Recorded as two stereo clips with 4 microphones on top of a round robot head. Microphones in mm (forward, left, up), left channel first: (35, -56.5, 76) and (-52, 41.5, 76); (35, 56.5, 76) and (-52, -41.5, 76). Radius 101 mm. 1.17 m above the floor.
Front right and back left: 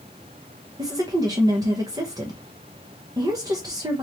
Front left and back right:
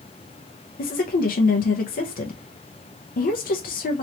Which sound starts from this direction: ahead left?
A woman speaking, at 0.8 s.